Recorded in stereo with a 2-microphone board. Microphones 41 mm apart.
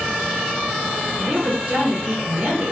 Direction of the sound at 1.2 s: 30° right (ahead or behind).